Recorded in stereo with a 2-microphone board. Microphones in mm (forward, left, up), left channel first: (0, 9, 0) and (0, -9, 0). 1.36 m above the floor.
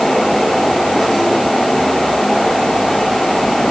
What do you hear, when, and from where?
Only background noise.